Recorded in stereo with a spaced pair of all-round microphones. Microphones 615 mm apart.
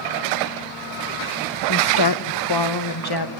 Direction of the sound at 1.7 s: 35° left (ahead or behind).